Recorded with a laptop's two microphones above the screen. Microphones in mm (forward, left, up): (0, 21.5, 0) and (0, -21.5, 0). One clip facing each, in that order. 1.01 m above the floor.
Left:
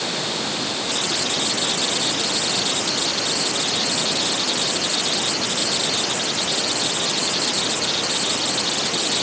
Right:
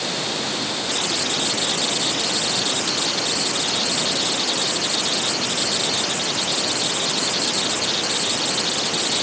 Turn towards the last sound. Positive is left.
No sound to turn to.